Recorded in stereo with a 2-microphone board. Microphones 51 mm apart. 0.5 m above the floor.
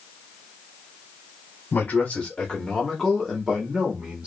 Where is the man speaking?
35° left (ahead or behind), 1.4 m; by 4.3 s 25° right (ahead or behind), 1.4 m.